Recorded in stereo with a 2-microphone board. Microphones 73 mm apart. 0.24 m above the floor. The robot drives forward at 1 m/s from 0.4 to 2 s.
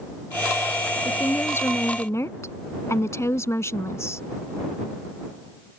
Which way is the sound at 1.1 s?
30° left (ahead or behind).